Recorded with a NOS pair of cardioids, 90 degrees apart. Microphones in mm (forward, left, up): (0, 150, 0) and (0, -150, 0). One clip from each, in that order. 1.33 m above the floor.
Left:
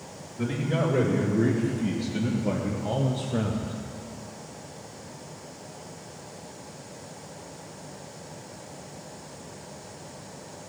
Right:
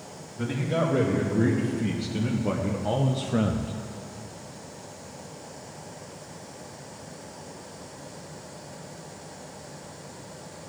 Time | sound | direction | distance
0.4 | a man speaking | 5° right | 3 m